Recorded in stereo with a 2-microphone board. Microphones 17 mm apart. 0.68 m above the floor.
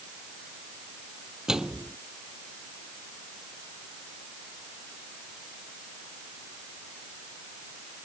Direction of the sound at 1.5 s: 40° right (ahead or behind).